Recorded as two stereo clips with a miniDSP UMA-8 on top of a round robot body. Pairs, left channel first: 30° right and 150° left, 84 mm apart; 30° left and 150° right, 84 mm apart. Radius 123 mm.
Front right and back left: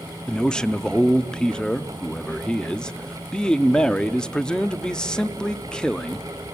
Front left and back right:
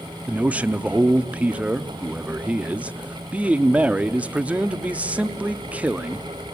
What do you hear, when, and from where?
0.3 s a man speaking: 95° right, 1.0 m